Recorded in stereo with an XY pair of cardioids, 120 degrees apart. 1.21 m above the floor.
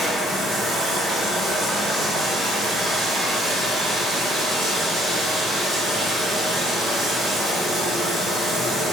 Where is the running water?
15° right, 1.3 m.